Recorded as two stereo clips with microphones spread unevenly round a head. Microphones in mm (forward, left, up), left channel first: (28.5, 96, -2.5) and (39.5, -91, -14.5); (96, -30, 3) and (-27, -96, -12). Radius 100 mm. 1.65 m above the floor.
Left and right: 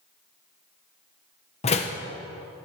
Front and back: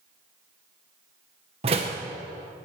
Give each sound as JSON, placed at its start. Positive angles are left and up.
{"t": 1.6, "sound": "a door slam", "azimuth_deg": 150, "distance_m": 0.9}